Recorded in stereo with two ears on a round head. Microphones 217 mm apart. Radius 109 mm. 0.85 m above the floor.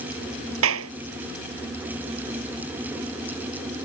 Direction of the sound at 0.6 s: 65° right (ahead or behind).